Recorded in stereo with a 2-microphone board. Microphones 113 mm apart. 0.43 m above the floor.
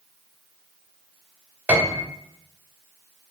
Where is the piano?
15° right (ahead or behind), 0.7 m.